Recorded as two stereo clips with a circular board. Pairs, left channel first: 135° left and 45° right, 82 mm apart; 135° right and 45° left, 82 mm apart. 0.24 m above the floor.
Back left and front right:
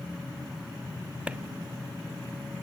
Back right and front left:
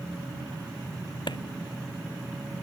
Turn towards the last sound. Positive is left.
turn(degrees=-120)